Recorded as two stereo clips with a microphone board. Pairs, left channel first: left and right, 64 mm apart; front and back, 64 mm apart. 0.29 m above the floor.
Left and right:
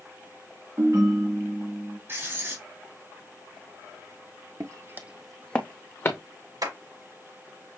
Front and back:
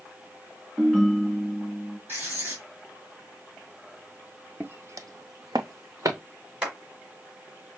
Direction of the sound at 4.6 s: 115° right.